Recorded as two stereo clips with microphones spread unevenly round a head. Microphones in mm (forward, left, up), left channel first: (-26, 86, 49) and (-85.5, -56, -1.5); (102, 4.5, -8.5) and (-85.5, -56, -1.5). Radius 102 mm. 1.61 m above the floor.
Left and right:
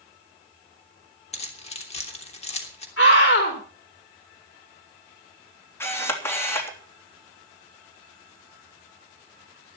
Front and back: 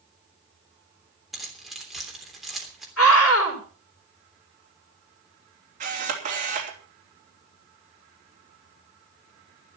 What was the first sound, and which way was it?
Keys jangling, 110° left.